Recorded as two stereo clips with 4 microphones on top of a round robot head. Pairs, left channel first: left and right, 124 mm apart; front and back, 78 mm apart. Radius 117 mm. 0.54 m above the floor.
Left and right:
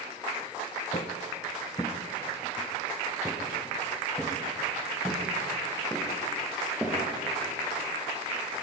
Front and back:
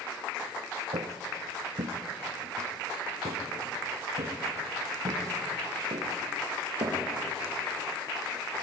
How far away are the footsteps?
About 1.6 m.